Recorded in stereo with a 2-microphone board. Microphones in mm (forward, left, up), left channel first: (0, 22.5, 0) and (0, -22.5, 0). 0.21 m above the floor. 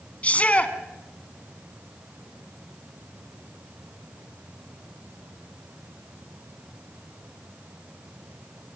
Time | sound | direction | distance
0.2 | a shout | 35° left (ahead or behind) | 2 m